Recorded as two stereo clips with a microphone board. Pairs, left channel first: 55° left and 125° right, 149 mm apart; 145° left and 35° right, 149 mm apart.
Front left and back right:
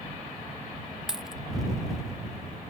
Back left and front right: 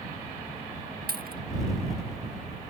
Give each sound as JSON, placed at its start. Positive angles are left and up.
{"t": 1.1, "sound": "a dropped coin", "azimuth_deg": -35}